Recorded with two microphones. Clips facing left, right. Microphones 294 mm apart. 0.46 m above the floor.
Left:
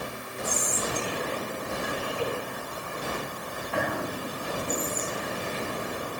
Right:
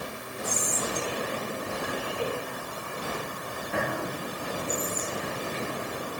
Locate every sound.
0.4 s whispering: 25° right (ahead or behind), 3 m